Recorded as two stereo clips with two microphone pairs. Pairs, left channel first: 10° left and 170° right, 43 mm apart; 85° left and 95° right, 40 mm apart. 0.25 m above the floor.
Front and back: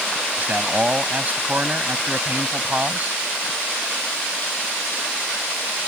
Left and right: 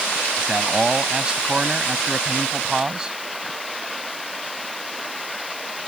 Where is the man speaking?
155° right.